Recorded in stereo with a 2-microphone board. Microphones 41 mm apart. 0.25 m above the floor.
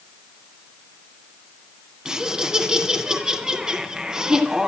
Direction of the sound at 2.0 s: 20° right (ahead or behind).